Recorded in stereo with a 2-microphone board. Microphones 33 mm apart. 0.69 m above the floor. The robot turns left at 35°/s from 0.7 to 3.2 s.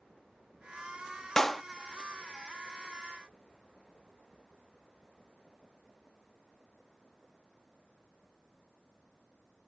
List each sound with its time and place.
1.4 s a clap: 10° left (ahead or behind); by 1.6 s 5° left (ahead or behind)